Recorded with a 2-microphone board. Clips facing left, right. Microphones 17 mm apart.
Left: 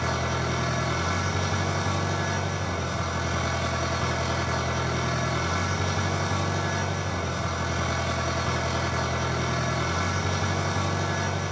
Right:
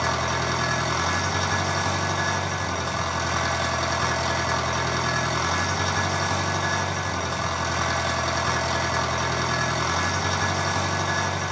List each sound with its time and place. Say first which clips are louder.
0.0 s an engine running: right 3 dB; 35° right (ahead or behind), 3 m